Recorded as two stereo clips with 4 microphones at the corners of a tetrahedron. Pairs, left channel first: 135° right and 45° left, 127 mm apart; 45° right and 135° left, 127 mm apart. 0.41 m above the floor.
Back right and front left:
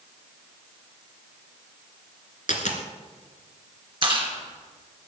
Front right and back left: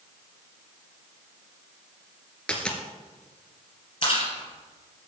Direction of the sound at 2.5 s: 125° right.